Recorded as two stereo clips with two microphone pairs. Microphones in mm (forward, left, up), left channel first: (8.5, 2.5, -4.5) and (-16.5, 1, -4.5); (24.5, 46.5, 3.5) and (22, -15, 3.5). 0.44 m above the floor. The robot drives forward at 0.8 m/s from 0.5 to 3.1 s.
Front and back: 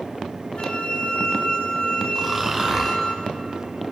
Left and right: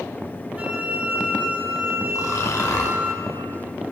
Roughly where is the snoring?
Behind left.